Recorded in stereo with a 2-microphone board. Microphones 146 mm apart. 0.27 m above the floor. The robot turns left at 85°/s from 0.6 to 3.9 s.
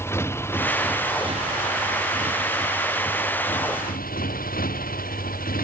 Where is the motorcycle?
15° left; by 5.7 s 95° left.